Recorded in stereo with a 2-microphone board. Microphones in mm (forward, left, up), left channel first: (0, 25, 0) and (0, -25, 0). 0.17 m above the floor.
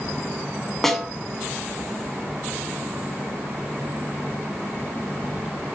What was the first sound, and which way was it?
A snare drum, 5° left (ahead or behind).